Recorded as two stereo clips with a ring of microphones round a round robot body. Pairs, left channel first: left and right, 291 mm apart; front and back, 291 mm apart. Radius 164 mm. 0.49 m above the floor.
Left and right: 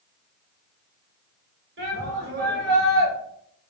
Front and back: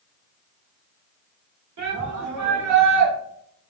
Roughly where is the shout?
Behind right.